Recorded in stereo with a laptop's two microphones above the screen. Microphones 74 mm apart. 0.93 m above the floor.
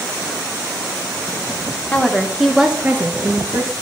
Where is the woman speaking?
20° left (ahead or behind), 0.9 m; by 3.7 s 45° right (ahead or behind), 1.1 m.